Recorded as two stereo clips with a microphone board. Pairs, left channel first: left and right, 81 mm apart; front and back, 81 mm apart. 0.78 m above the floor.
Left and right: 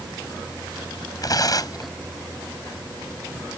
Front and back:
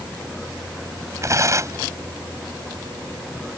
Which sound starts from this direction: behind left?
Tearing paper, at 1.2 s.